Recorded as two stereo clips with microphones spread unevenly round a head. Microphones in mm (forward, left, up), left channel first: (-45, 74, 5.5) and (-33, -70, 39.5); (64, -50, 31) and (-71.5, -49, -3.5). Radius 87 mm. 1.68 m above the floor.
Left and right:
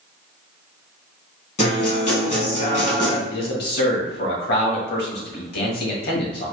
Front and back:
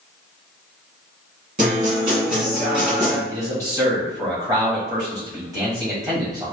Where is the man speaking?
105° left, 1.6 m.